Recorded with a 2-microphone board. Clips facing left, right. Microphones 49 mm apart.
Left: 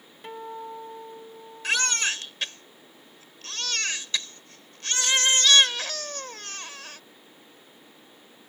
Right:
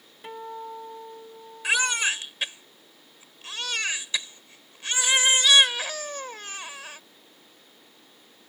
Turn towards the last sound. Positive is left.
turn(degrees=-15)  # may be behind; listen again after turning